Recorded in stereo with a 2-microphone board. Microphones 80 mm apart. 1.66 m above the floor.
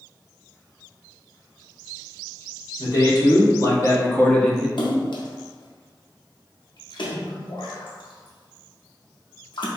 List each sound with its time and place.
2.8 s a man speaking: 55° left (ahead or behind), 1.5 m; by 4.7 s 5° right (ahead or behind), 0.5 m
4.8 s a splash: 80° left, 0.6 m